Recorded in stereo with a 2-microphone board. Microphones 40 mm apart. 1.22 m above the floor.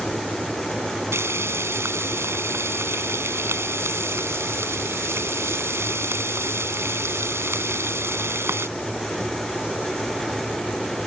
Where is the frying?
80° right.